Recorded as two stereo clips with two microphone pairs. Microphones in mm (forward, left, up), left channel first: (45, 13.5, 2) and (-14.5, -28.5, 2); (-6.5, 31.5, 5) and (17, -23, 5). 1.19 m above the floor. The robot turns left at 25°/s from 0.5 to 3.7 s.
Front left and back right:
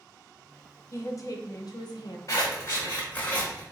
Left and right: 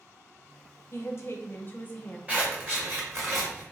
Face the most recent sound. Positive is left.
turn(degrees=-35)